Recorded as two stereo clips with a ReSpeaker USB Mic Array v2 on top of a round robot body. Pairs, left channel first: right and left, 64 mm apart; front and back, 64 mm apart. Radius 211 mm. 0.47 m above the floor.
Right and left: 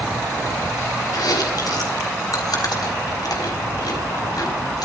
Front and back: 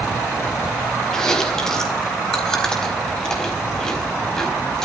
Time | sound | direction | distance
1.1 | chewing | 80° right | 4 m